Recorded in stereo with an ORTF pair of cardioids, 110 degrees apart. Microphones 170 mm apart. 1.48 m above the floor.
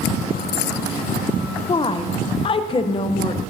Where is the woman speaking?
35° left, 0.8 m.